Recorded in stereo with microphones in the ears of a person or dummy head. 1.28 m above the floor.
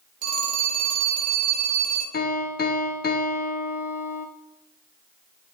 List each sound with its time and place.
0.2 s a phone ringing: 40° right (ahead or behind), 1.5 m
2.1 s a piano: 40° left (ahead or behind), 0.9 m